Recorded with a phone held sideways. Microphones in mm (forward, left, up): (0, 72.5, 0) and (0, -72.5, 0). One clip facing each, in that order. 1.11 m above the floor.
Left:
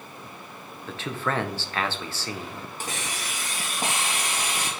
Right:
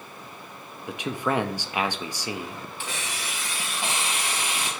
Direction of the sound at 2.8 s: 40° left (ahead or behind).